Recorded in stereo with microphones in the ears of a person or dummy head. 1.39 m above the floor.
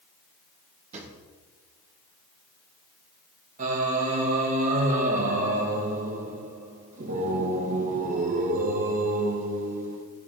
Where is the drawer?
40° right (ahead or behind), 2 m.